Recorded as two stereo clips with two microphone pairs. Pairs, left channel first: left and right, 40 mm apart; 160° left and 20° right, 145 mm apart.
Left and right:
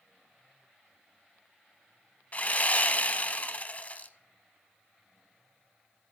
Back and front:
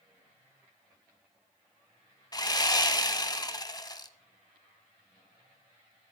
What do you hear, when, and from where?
2.3 s sawing: 115° left, 0.6 m